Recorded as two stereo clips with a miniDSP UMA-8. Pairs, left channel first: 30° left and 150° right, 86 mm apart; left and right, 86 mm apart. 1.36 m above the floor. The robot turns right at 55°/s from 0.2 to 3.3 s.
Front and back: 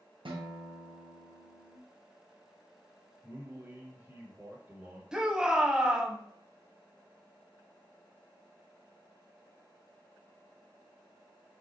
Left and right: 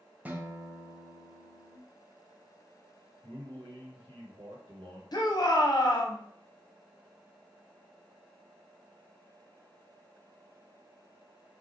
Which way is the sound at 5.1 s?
130° left.